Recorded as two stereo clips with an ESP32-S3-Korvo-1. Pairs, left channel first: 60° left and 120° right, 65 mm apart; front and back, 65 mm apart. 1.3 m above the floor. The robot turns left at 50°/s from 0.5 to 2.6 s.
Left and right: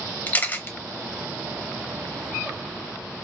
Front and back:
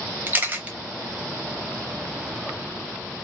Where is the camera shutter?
120° left, 0.7 m; by 0.7 s 110° left, 0.7 m.